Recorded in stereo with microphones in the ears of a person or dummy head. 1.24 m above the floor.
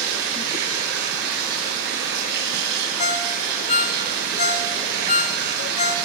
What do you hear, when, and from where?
0.0 s running water: 65° right (ahead or behind), 8 m
3.0 s a ringtone: 35° left (ahead or behind), 1.0 m